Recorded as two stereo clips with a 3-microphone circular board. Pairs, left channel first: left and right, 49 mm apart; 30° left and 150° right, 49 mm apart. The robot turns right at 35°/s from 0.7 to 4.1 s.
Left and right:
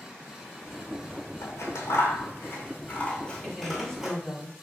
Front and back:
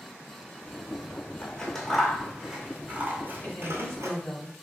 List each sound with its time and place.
1.4 s scissors: 95° left, 0.8 m; by 4.2 s 170° right, 0.8 m
3.4 s a woman speaking: 35° left, 1.2 m; by 4.5 s 60° left, 1.2 m